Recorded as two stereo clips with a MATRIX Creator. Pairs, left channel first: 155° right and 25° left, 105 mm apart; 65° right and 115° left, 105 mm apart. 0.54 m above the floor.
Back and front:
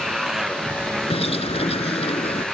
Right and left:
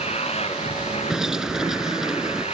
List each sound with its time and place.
0.0 s a motorcycle: 65° right; by 2.6 s 70° right
1.1 s a bird: 165° right